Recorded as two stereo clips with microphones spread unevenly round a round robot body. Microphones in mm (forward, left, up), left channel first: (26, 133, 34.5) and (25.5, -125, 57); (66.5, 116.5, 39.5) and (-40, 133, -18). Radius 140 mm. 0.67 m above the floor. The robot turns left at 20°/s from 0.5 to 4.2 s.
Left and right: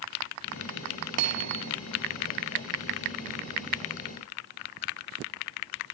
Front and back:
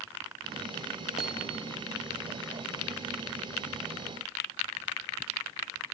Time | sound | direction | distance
1.2 | hammering | 65° right | ?